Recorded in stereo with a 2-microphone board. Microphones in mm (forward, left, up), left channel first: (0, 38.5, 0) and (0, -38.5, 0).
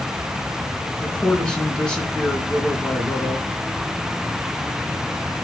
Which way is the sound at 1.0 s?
10° left (ahead or behind).